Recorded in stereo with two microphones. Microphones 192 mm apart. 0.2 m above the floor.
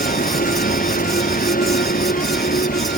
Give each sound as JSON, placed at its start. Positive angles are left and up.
{"t": 0.0, "sound": "a vehicle", "side_deg": 50}